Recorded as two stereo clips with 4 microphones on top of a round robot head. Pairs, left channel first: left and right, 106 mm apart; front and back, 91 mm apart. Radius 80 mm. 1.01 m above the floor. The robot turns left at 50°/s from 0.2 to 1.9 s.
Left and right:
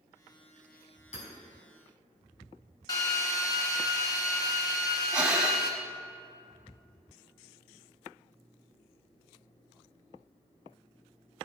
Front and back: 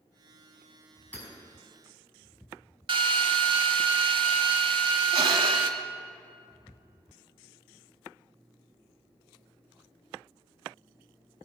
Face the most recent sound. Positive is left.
turn(degrees=-170)